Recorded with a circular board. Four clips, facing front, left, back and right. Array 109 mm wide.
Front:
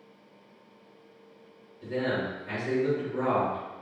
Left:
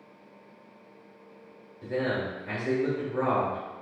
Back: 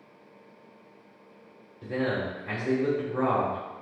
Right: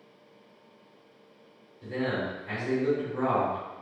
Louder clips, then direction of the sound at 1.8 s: Left 1 dB, back 1 dB; 155° left.